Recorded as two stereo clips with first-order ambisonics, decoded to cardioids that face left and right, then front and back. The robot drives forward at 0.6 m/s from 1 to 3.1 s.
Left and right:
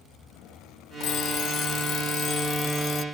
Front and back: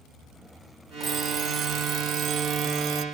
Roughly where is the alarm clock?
Behind left.